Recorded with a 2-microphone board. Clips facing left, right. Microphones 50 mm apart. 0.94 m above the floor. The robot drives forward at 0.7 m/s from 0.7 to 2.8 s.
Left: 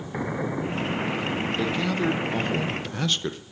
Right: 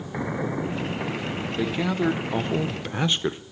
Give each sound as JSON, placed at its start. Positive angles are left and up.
{"t": 1.6, "sound": "a man speaking", "side_deg": -10, "distance_m": 1.0}